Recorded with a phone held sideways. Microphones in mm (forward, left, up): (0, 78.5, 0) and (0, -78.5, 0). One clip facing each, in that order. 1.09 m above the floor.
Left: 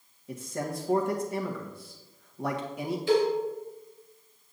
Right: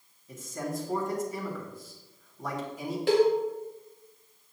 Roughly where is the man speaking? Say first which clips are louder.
Left 1 dB; left.